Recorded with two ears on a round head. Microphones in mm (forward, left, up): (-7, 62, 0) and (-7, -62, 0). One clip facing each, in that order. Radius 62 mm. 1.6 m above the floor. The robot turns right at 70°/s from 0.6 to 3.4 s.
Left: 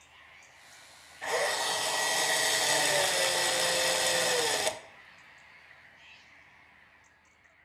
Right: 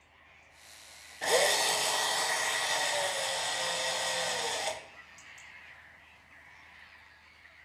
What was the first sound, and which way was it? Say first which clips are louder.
A drill: right 3 dB; 45° right.